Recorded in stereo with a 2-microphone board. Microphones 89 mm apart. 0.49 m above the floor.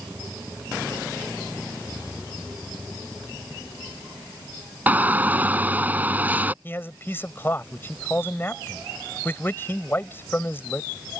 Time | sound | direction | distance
4.9 | a shout | 20° right (ahead or behind) | ?
6.6 | a man speaking | 30° left (ahead or behind) | ?